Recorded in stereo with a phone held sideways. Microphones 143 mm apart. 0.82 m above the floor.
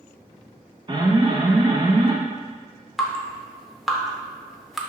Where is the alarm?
30° right (ahead or behind), 0.6 m.